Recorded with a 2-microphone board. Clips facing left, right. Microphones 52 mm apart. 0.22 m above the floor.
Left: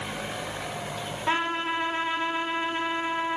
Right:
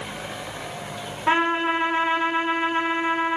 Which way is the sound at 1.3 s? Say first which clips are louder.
Right 6 dB; 25° right (ahead or behind).